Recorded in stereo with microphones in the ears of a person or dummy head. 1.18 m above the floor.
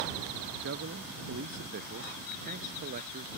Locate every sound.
0.6 s a man speaking: 60° right (ahead or behind); by 3.4 s 45° right (ahead or behind)